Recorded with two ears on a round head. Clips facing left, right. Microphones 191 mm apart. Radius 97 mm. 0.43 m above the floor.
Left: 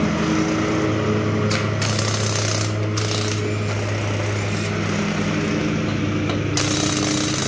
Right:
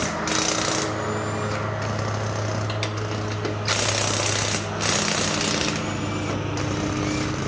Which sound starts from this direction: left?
A lawn mower, at 0.0 s.